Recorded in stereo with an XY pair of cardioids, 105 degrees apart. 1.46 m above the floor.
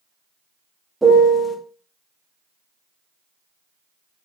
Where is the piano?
5° right, 0.6 m.